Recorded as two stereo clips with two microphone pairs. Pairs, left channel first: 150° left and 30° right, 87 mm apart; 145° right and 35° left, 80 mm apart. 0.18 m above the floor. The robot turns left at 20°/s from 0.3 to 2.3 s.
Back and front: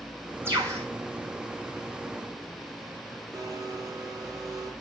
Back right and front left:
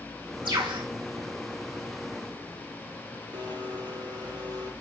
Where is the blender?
15° left, 5 m.